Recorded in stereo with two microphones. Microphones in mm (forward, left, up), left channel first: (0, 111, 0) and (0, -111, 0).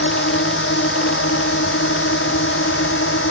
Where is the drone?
55° left (ahead or behind); by 3.3 s 60° left (ahead or behind).